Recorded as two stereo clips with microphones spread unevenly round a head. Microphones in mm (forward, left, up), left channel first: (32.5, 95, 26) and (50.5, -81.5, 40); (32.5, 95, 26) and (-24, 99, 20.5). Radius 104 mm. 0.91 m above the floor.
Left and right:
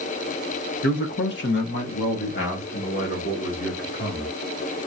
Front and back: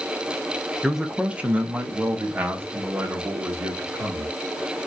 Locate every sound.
0.8 s a man speaking: 95° left, 1.0 m; by 4.3 s 140° left, 2.5 m